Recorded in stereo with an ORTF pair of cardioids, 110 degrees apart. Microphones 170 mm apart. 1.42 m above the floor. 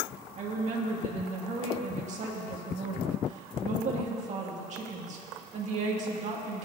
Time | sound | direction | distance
0.4 | a woman speaking | 45° right | 2.5 m